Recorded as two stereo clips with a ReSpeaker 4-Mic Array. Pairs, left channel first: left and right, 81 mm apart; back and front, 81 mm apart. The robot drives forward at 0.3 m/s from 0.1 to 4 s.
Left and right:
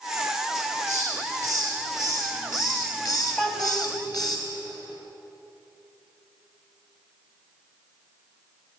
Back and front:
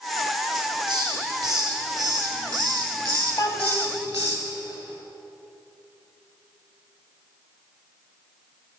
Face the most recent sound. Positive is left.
turn(degrees=170)